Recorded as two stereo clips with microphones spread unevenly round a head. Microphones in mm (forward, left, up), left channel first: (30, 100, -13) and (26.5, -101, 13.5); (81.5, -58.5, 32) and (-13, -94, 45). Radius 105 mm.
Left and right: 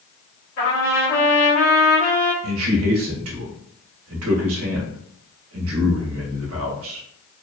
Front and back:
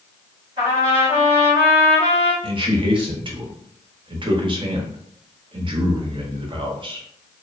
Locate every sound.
0.6 s a trumpet: 135° left, 1.3 m
2.4 s a man speaking: 120° right, 0.8 m